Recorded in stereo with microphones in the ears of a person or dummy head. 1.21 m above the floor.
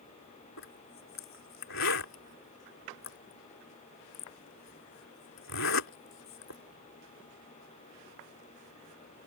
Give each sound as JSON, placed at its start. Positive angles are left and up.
{"t": 0.6, "sound": "a zipper", "side_deg": 75}